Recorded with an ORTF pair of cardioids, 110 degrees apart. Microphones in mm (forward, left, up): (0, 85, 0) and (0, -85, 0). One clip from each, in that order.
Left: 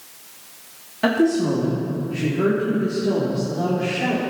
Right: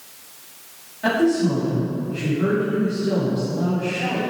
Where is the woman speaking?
65° left, 2.5 m; by 4.2 s 35° left, 4 m.